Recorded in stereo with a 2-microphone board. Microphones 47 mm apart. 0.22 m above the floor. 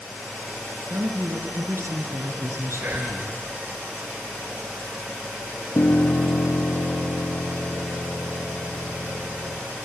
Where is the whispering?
50° right (ahead or behind), 3.5 m.